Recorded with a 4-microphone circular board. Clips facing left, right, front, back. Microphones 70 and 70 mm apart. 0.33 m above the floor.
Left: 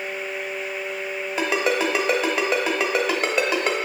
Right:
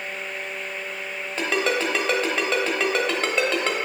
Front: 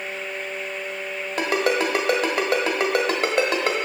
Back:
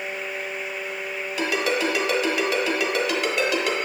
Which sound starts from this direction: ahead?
A ringtone, at 1.4 s.